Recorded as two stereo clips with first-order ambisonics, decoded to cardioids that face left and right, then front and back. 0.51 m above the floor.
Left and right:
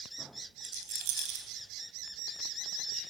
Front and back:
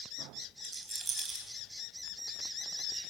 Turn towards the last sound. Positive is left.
turn(degrees=-105)